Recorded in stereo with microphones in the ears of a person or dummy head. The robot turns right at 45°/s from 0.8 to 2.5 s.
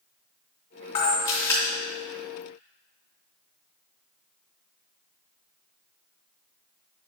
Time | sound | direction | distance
0.9 | a camera shutter | 40° left (ahead or behind) | 3 m